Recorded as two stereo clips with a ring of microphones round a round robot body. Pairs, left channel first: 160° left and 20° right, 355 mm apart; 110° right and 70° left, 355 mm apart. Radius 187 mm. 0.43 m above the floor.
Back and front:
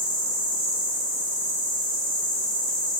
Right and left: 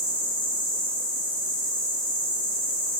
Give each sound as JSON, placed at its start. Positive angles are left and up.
{"t": 0.0, "sound": "an insect", "azimuth_deg": -25, "distance_m": 1.5}